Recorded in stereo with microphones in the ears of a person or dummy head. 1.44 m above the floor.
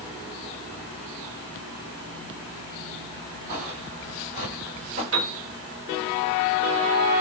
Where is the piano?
65° right (ahead or behind), 1.6 m.